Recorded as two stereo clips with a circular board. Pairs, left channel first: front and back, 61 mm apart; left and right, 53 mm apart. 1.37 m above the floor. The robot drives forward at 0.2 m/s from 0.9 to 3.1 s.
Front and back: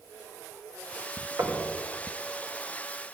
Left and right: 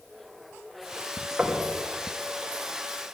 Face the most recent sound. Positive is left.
turn(degrees=-165)